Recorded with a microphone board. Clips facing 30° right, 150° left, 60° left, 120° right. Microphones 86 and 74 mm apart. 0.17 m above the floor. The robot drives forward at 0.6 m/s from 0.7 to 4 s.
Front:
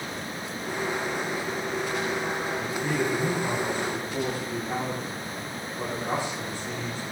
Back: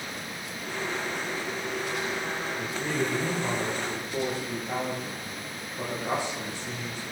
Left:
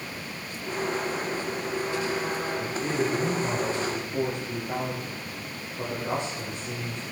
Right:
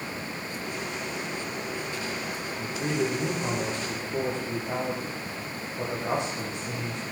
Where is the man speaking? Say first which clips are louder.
Front 1 dB, right 3 dB; 140° right, 8.5 m.